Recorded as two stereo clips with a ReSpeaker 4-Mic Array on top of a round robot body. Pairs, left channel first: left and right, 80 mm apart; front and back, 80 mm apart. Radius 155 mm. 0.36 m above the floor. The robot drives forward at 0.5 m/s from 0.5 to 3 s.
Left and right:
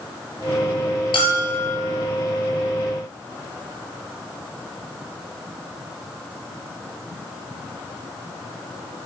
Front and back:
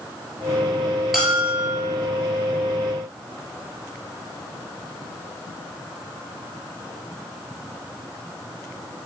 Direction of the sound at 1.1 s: 90° left.